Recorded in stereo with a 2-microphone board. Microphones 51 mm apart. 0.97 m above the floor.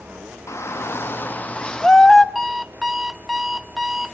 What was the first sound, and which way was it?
A shout, 65° left (ahead or behind).